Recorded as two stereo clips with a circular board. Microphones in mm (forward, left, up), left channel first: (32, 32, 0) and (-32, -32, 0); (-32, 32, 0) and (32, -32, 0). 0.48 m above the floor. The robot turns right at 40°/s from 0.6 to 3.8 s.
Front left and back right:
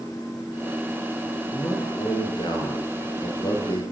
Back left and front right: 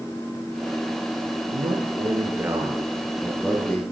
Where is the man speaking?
20° right, 8 m; by 3.8 s 70° left, 8 m.